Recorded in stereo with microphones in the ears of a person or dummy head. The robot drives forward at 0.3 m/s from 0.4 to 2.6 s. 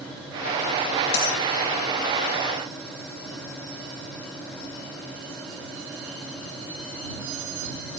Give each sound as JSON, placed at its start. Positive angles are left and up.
{"t": 1.1, "sound": "a dropped coin", "side_deg": 75, "distance_m": 4.0}